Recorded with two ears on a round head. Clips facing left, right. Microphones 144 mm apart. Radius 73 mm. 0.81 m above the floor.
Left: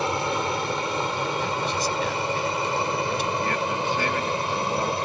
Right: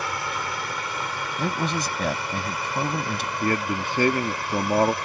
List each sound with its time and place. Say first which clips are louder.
0.0 s an aircraft: left 5 dB; 20° left (ahead or behind)
1.4 s a man speaking: even; 40° right (ahead or behind)
3.4 s a man speaking: right 1 dB; 40° right (ahead or behind)